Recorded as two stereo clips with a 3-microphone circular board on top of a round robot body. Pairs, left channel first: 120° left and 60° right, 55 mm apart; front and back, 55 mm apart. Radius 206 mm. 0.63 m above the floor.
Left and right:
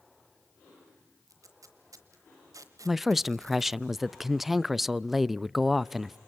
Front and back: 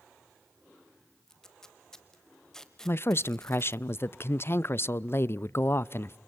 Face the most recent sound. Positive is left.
turn(degrees=25)